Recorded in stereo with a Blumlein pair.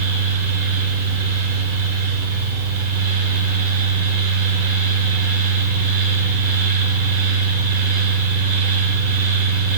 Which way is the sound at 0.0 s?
55° right.